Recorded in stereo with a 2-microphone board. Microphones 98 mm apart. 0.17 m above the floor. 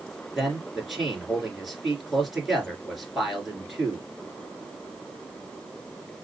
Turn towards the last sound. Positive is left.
turn(degrees=0)  # may be behind; listen again after turning